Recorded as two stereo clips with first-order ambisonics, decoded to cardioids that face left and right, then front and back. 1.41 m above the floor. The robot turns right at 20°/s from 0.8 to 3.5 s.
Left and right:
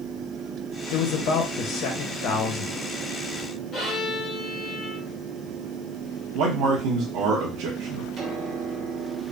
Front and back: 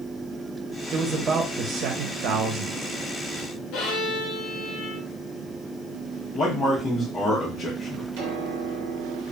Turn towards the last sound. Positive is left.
turn(degrees=-155)